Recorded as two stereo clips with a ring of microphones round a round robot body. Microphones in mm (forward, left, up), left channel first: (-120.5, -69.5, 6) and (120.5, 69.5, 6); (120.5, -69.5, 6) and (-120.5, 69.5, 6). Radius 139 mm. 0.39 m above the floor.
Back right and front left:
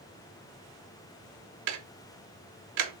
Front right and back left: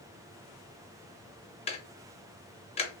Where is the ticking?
40° left, 0.6 m.